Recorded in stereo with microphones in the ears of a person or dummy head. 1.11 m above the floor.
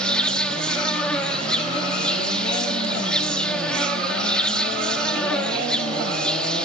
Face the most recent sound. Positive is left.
turn(degrees=5)  # may be behind; listen again after turning